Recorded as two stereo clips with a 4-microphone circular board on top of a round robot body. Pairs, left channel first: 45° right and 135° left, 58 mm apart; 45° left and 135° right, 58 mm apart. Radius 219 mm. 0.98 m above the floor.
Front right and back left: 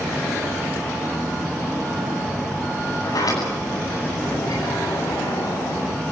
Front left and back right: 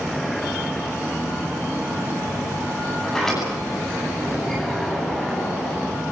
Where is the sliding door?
40° right, 10 m.